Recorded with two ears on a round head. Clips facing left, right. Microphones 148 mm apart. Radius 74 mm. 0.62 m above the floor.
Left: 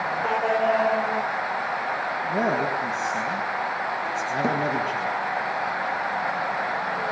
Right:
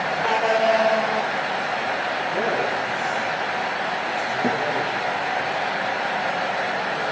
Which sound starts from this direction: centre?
A thud, at 4.4 s.